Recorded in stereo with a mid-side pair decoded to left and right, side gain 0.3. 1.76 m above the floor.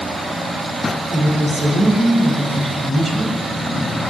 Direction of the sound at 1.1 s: 65° right.